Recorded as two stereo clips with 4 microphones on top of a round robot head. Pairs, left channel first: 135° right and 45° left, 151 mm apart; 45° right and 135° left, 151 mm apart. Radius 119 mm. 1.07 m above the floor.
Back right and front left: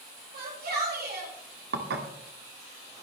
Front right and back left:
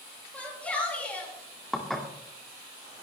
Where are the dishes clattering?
45° left, 1.8 m.